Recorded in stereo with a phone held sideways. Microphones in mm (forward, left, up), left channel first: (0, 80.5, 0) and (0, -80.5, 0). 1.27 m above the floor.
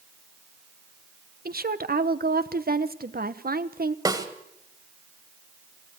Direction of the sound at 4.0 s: 25° right (ahead or behind).